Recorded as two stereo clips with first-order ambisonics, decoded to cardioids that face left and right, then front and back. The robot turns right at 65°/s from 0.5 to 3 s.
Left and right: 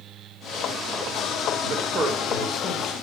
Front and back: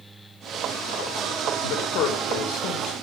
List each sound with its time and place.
1.6 s a man speaking: 40° right, 3 m; by 2.9 s 45° left, 3 m